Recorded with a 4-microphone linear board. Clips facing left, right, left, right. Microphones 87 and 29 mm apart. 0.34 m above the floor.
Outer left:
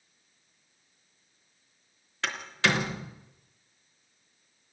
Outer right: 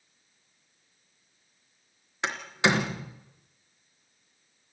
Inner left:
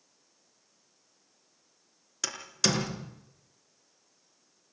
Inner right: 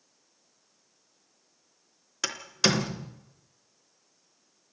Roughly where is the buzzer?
I don't hear a buzzer.